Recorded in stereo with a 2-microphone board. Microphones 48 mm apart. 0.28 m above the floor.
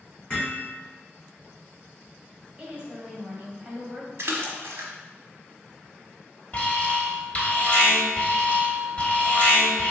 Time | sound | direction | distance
0.3 | hammering | 20° left (ahead or behind) | 1.8 m
2.6 | a woman speaking | 20° right (ahead or behind) | 1.5 m
4.2 | a splash | 65° right (ahead or behind) | 0.7 m
6.5 | an alarm | 30° left (ahead or behind) | 0.9 m